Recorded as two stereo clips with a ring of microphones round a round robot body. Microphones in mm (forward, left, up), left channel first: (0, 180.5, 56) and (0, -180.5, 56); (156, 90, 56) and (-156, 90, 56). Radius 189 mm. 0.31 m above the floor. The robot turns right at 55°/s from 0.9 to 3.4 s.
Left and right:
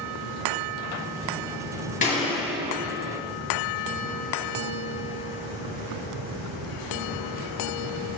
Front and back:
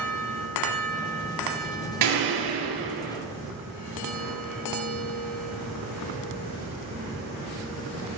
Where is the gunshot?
160° left, 2.5 m; by 3.2 s 135° right, 2.5 m.